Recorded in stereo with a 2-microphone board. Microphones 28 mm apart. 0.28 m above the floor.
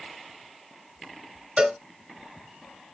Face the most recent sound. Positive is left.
turn(degrees=-30)  # may be behind; listen again after turning